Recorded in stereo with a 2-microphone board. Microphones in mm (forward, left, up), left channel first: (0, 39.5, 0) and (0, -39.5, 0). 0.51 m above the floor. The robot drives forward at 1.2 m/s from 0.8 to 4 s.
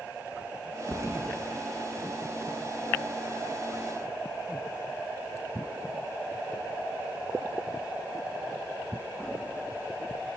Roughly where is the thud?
Right.